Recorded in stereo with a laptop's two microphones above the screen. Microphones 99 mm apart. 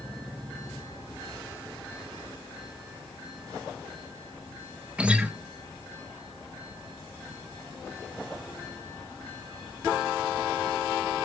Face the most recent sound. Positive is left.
turn(degrees=-10)  # may be behind; listen again after turning